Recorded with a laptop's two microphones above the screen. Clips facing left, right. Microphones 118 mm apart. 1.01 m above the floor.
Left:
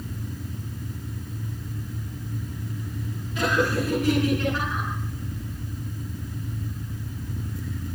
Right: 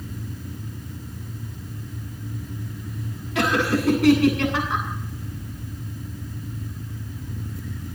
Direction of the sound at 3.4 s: 80° right.